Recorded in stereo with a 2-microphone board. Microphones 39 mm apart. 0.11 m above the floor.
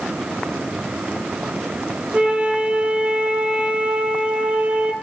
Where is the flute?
30° right (ahead or behind), 0.8 m.